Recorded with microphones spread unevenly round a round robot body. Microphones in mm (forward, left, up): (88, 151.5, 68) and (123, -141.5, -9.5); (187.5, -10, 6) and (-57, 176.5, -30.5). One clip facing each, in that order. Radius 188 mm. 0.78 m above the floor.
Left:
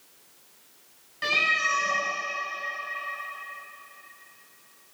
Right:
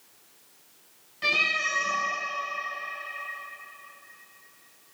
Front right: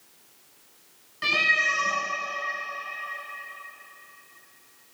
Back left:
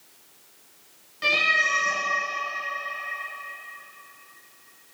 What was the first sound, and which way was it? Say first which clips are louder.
A cat meowing: left 1 dB, back left 3 dB; 35° left.